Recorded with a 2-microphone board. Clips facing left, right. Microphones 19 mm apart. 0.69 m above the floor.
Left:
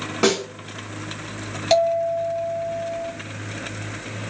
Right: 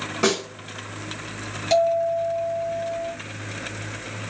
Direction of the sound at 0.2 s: 15° left (ahead or behind).